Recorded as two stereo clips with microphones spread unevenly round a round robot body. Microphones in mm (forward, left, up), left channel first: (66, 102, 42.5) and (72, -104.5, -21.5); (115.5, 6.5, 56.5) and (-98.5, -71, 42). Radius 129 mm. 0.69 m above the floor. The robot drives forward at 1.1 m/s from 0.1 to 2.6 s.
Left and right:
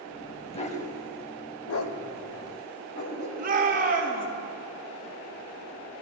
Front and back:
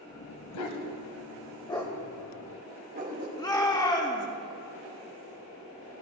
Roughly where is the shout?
Ahead right.